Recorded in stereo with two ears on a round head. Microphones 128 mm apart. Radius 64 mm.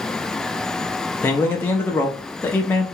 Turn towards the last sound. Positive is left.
turn(degrees=15)  # may be behind; listen again after turning